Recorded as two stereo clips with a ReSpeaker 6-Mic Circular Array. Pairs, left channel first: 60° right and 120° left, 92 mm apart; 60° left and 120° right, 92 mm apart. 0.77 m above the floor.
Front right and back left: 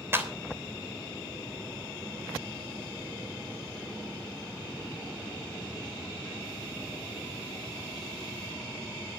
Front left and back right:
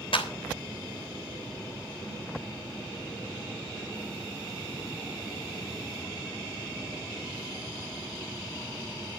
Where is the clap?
55° left, 3 m.